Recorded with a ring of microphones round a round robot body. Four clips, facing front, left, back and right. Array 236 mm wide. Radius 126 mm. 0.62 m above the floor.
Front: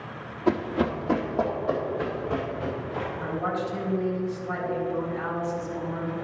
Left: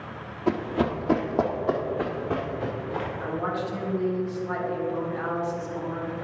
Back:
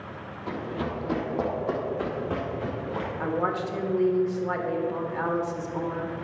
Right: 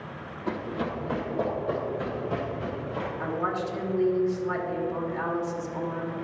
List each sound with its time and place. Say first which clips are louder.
0.5 s running footsteps: left 6 dB, front 7 dB; 50° left, 1.2 m; by 3.1 s 115° left, 3.5 m
3.2 s a woman speaking: right 2 dB, back 3 dB; 170° right, 1.8 m